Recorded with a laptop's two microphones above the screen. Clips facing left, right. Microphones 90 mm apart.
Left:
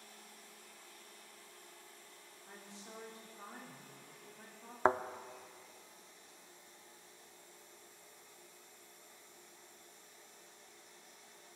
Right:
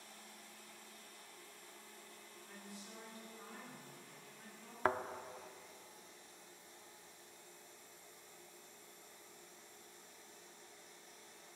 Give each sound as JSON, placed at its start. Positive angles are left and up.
{"t": 2.5, "sound": "a woman speaking", "side_deg": 25, "distance_m": 2.5}
{"t": 4.8, "sound": "a thud", "side_deg": 25, "distance_m": 0.5}